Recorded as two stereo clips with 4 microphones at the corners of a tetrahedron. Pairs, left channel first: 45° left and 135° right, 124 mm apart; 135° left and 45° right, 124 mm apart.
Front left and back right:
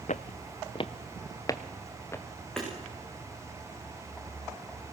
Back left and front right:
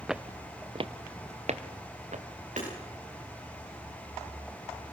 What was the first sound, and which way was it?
Footsteps, 40° left.